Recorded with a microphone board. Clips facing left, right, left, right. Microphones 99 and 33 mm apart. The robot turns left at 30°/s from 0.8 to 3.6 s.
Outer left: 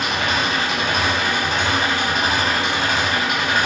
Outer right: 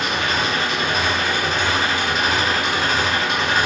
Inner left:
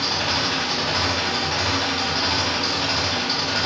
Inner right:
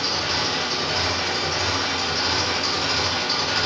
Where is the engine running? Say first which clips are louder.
Even, inner left 1 dB; 80° left, 1.3 m; by 3.7 s 5° right, 1.3 m.